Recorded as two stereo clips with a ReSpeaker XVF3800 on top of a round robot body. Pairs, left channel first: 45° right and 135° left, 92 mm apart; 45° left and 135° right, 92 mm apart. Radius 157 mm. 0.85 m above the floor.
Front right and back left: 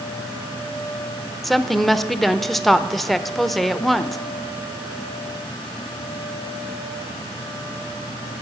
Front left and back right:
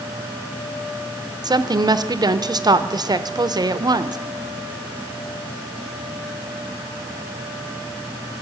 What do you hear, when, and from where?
1.4 s a woman speaking: 135° right, 0.7 m